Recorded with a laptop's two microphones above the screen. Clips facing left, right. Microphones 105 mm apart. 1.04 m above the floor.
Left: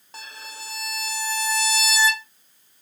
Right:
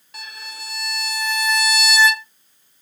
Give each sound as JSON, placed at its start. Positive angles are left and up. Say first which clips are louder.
{"t": 0.1, "sound": "a violin", "louder": "right 2 dB", "side_deg": 35, "distance_m": 0.9}